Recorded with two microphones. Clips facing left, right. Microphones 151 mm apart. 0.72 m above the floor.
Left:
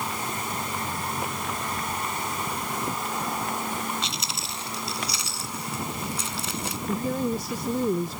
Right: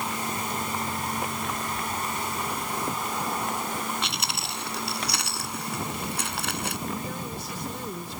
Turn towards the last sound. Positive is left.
turn(degrees=45)  # may be behind; listen again after turning